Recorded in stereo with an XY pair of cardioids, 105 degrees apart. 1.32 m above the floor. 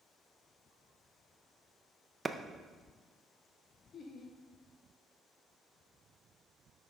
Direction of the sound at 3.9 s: 55° left.